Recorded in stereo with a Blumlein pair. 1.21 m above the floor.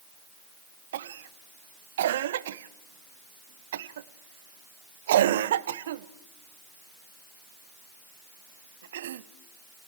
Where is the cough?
60° right, 0.7 m.